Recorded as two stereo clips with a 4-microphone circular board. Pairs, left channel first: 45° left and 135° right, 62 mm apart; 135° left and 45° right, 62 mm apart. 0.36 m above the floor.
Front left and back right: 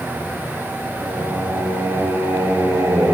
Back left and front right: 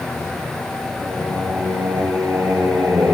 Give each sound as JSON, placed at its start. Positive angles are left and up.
{"t": 1.0, "sound": "singing", "azimuth_deg": -90, "distance_m": 9.5}